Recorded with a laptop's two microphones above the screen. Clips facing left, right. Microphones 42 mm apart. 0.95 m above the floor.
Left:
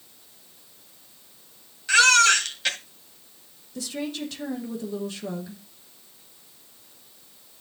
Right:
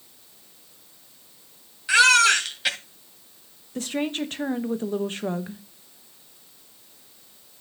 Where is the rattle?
I don't hear a rattle.